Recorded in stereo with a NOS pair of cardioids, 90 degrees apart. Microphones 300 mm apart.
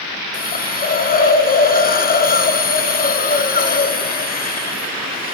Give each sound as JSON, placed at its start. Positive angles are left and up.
{"t": 0.3, "sound": "a hiss", "azimuth_deg": 30, "distance_m": 1.2}